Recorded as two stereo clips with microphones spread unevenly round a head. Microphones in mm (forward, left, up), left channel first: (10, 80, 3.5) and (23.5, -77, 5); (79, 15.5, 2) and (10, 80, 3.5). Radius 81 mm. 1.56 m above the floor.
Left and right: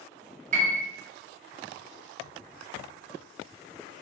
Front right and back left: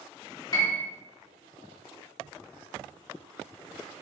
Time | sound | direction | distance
0.5 | a piano | 80° right | 0.7 m